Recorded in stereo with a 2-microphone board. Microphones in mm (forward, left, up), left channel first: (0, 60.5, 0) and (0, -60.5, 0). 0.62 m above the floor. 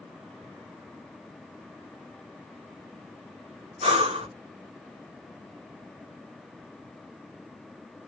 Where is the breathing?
55° right (ahead or behind), 1.1 m.